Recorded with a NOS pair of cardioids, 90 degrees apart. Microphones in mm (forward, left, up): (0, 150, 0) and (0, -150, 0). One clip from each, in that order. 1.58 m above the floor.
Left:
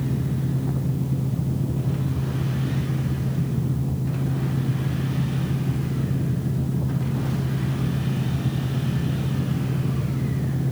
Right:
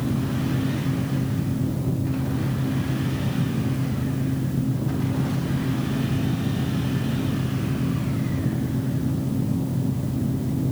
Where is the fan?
15° left, 1.3 m.